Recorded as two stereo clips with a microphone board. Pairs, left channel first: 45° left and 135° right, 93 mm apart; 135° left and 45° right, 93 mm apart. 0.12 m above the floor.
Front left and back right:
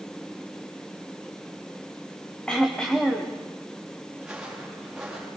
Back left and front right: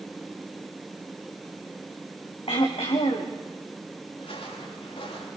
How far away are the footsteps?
About 7 m.